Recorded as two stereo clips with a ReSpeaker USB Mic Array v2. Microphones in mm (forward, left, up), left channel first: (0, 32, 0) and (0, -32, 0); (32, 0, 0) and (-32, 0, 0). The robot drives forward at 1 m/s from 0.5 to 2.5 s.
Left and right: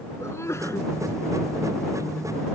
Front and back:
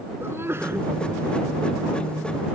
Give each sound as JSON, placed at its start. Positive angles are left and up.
{"t": 0.2, "sound": "a sneeze", "azimuth_deg": 130}